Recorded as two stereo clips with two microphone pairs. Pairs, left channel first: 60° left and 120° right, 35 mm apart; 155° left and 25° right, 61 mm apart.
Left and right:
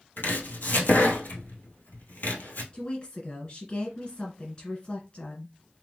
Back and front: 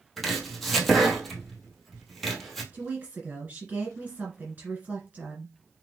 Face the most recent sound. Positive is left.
turn(degrees=25)